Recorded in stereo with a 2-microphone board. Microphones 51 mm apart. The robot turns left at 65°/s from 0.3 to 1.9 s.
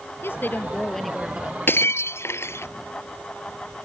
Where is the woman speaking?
55° left; by 1.6 s 30° right.